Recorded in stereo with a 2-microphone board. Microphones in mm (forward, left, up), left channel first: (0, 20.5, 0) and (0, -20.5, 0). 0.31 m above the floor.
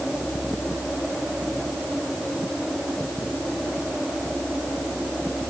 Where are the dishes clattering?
I don't hear dishes clattering.